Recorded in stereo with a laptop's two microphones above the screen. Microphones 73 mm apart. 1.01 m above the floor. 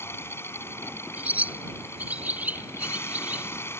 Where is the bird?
20° right (ahead or behind).